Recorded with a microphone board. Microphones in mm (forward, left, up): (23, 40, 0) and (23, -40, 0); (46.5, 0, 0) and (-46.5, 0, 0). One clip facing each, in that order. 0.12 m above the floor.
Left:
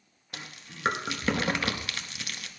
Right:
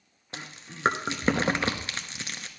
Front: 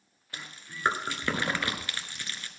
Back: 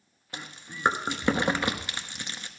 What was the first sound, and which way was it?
Chewing, 125° right.